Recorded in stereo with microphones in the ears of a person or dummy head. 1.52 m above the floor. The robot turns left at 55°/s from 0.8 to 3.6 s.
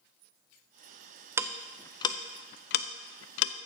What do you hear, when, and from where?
1.4 s ticking: 10° right (ahead or behind), 0.5 m; by 3.5 s 65° left (ahead or behind), 0.5 m